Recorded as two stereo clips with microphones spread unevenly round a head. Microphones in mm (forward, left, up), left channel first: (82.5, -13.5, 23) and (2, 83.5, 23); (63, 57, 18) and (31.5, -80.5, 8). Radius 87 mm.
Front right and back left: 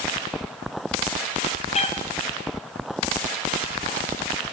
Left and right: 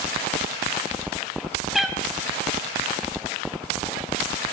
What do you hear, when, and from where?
1.7 s a cat meowing: 15° right, 3.5 m